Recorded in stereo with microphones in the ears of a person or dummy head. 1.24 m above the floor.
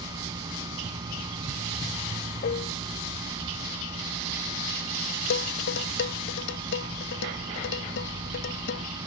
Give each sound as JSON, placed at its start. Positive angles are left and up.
{"t": 0.0, "sound": "a machine running", "side_deg": -25}
{"t": 2.4, "sound": "dishes clattering", "side_deg": 40}
{"t": 5.3, "sound": "dishes clattering", "side_deg": 65}